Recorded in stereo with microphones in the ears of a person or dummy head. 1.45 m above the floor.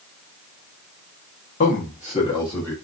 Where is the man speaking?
45° left (ahead or behind), 1.2 m; by 2.7 s 10° left (ahead or behind), 1.5 m.